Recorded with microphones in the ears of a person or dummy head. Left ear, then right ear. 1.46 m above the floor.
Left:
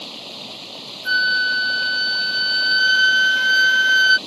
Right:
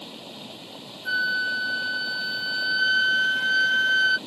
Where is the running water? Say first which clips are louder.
Left 7 dB; 25° left (ahead or behind).